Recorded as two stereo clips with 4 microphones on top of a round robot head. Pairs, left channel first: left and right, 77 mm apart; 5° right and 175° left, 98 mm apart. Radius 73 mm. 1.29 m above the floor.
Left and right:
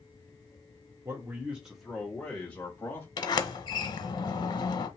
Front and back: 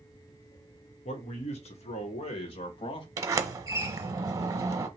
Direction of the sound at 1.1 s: 25° right.